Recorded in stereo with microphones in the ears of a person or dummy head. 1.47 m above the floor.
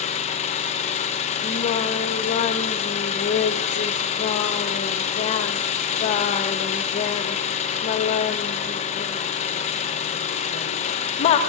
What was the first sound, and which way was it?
An engine running, 35° left (ahead or behind).